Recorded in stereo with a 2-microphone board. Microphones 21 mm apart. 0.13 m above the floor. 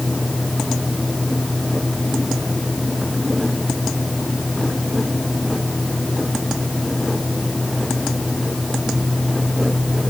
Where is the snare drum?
No snare drum in this recording.